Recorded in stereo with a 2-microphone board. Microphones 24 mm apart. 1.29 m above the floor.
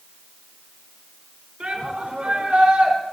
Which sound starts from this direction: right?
A shout, at 1.6 s.